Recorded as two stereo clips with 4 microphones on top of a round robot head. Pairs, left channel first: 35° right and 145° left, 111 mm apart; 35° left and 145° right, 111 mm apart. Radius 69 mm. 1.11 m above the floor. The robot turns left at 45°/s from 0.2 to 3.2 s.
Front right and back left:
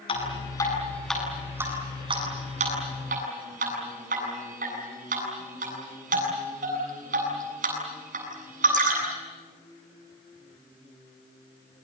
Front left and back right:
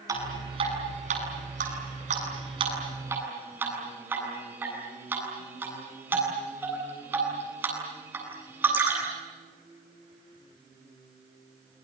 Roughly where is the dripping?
Right.